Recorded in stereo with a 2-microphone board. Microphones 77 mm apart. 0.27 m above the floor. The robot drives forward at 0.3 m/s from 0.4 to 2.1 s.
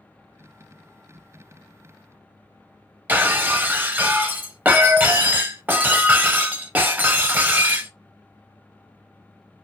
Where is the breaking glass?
25° right (ahead or behind), 0.5 m.